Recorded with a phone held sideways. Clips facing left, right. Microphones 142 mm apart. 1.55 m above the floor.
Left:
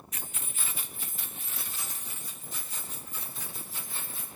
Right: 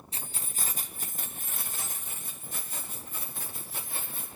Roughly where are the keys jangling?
Right.